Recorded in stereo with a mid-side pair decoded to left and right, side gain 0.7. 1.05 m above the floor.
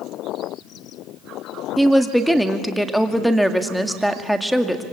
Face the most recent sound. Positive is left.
turn(degrees=0)